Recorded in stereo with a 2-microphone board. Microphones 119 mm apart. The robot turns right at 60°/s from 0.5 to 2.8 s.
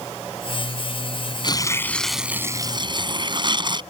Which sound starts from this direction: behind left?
Tearing paper, at 1.4 s.